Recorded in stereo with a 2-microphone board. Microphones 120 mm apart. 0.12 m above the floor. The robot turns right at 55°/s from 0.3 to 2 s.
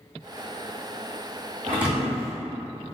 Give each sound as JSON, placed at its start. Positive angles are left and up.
{"t": 1.7, "sound": "a thud", "side_deg": -20, "distance_m": 1.7}